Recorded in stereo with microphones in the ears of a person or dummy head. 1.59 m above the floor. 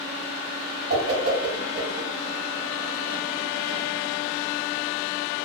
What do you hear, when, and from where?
0.9 s a whoosh: 55° right (ahead or behind), 1.4 m